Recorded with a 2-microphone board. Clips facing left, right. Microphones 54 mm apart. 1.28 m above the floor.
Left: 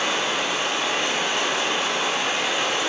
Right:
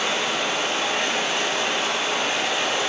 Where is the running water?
25° left (ahead or behind), 1.1 m.